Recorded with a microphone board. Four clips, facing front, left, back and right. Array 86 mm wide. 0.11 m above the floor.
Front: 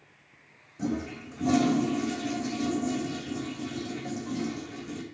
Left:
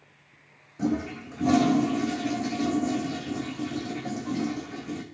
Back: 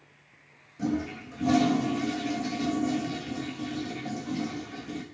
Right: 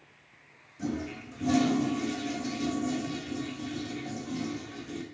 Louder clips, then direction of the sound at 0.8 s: Left 6 dB, back 2 dB; 85° left.